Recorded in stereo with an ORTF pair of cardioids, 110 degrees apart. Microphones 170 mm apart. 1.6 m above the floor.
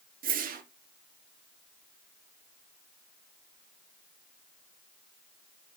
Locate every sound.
0.2 s a whoosh: 50° right, 1.9 m